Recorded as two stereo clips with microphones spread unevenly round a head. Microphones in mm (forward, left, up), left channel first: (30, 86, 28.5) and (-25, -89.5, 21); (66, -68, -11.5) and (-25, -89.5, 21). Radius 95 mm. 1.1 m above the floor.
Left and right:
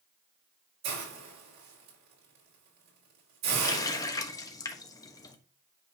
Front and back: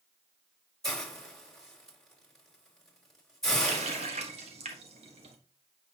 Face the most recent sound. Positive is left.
turn(degrees=145)